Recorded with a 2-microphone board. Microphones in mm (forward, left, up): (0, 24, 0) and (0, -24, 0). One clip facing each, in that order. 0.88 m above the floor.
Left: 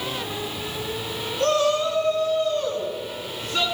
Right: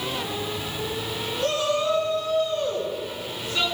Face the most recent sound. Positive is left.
turn(degrees=75)  # may be behind; listen again after turning